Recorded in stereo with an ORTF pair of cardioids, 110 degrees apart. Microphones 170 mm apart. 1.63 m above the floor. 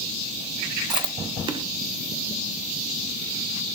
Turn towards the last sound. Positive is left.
turn(degrees=-30)